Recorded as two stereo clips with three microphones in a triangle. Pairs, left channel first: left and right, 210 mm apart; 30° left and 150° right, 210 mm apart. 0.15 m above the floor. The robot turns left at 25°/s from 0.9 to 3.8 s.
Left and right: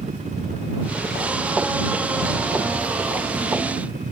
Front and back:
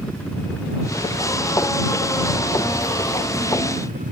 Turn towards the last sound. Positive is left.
turn(degrees=-125)